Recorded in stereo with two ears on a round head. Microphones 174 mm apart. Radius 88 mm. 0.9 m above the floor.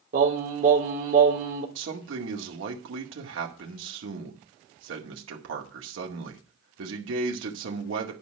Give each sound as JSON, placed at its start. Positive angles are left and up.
{"t": 0.1, "sound": "singing", "side_deg": -40, "distance_m": 3.0}
{"t": 1.8, "sound": "a man speaking", "side_deg": -70, "distance_m": 2.0}